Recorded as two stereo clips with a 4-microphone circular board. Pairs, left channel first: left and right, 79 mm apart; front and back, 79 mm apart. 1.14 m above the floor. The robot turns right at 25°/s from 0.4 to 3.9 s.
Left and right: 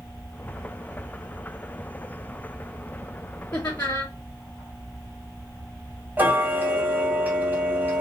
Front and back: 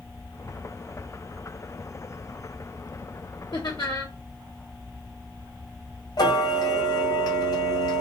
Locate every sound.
3.5 s laughter: 35° left, 1.2 m; by 4.1 s 45° left, 1.2 m
6.2 s ticking: 25° right, 2.0 m